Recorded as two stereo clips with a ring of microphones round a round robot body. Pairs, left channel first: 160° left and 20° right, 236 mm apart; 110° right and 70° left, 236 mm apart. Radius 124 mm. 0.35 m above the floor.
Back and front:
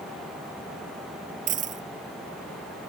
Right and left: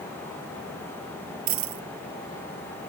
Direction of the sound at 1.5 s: 35° left.